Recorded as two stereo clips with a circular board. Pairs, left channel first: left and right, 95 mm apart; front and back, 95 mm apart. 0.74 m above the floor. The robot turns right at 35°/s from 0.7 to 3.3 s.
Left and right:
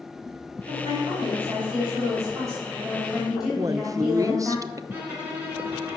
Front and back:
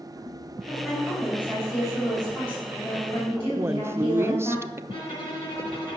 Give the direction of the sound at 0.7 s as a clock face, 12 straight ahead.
3 o'clock.